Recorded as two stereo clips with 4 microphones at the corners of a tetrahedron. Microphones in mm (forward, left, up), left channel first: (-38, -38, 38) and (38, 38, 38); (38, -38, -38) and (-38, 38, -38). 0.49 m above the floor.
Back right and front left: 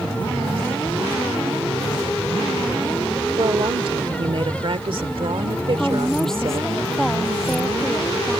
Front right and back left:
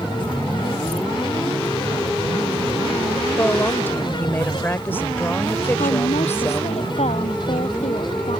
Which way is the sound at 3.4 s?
20° left.